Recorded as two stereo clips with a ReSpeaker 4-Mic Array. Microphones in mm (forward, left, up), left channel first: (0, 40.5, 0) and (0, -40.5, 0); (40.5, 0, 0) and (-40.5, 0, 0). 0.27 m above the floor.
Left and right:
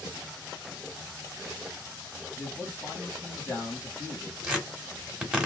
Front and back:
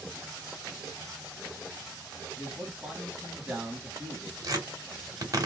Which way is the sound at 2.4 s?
120° left.